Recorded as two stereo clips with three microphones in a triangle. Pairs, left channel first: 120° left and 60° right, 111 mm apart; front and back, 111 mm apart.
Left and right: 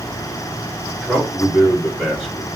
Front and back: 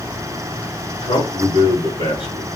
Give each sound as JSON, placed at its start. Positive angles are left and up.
{"t": 1.0, "sound": "a man speaking", "azimuth_deg": 35, "distance_m": 2.5}